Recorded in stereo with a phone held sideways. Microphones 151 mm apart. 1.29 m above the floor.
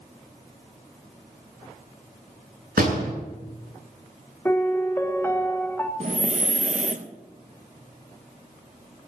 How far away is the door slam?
About 9.5 m.